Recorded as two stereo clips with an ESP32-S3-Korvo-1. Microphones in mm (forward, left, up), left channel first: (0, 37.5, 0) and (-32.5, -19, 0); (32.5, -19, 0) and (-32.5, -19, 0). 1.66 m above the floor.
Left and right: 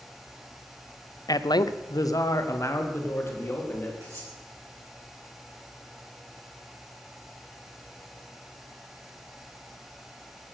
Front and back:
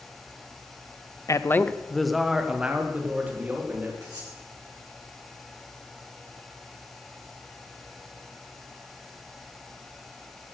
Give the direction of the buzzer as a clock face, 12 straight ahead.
No buzzer in this recording.